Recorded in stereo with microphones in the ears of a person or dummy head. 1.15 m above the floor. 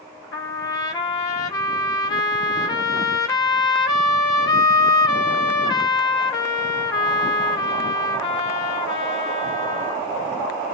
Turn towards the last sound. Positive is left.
turn(degrees=25)  # may be behind; listen again after turning